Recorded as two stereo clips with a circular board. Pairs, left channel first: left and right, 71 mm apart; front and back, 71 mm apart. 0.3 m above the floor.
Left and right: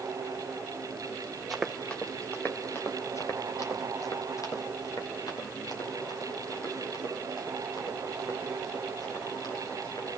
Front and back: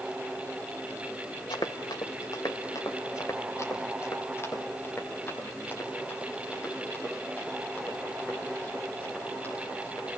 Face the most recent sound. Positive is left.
turn(degrees=65)